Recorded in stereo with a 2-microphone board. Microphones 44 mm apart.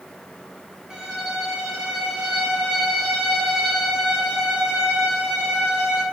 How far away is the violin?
About 1.7 m.